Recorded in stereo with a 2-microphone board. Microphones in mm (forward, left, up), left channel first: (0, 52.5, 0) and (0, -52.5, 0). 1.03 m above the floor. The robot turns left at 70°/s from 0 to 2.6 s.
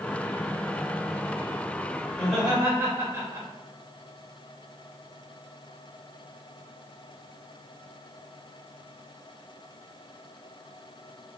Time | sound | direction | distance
2.1 | laughter | 10° left | 1.8 m